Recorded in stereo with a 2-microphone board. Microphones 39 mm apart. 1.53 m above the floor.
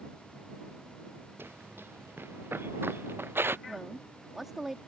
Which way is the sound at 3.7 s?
10° right (ahead or behind).